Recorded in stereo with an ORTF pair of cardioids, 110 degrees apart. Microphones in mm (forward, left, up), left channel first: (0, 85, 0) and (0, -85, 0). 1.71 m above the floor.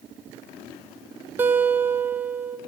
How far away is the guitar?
About 0.7 m.